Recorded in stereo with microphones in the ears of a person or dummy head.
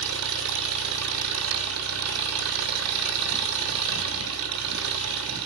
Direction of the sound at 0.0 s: 70° right (ahead or behind).